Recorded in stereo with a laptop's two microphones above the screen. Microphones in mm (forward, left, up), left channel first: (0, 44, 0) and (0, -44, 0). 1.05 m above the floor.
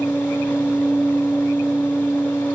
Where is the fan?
25° left (ahead or behind), 0.9 m.